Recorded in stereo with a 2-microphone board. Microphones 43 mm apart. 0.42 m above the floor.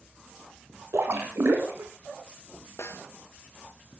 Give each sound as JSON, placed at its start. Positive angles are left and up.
{"t": 0.9, "sound": "a splash", "side_deg": -75, "distance_m": 4.0}
{"t": 2.8, "sound": "a snare drum", "side_deg": 90, "distance_m": 2.5}